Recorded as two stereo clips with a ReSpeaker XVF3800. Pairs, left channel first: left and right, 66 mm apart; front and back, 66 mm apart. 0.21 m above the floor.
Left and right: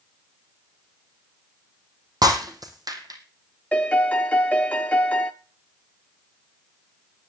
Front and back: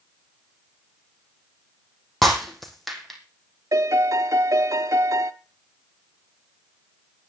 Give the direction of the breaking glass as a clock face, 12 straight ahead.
3 o'clock.